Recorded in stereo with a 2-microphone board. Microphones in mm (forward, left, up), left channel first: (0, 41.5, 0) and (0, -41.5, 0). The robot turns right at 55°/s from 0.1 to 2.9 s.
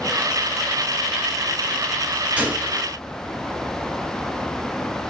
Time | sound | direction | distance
2.4 | a gunshot | 15° right (ahead or behind) | 1.1 m